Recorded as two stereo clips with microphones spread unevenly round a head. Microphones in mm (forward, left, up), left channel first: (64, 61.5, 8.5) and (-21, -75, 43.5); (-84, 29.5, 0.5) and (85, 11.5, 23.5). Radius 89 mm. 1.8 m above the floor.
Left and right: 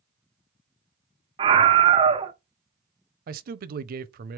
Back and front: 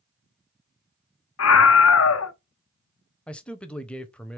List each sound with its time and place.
1.4 s a scream: straight behind, 0.8 m
3.3 s a man speaking: 100° right, 0.5 m